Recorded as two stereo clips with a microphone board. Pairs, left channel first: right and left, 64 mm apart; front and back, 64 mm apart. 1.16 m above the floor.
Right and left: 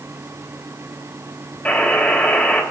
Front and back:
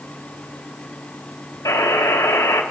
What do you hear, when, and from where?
1.6 s a buzzer: 20° right, 3 m